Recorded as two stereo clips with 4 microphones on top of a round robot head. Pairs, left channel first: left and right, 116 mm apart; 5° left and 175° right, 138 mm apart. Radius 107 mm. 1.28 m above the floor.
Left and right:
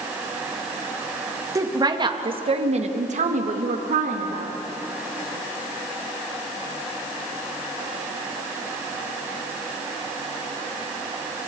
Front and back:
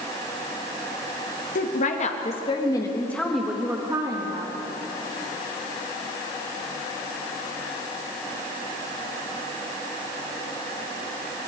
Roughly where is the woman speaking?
Ahead right.